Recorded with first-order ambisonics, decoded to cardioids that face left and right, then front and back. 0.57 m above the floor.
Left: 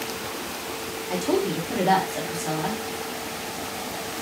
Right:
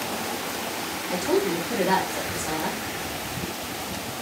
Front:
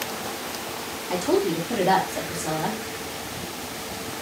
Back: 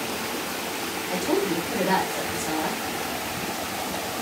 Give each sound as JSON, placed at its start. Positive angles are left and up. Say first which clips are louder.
{"t": 1.1, "sound": "a woman speaking", "louder": "even, front 2 dB", "azimuth_deg": 35, "distance_m": 1.0}